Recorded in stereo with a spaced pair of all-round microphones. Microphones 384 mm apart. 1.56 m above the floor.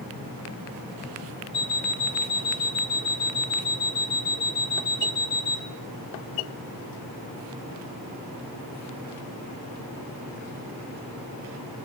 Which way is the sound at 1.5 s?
15° left (ahead or behind).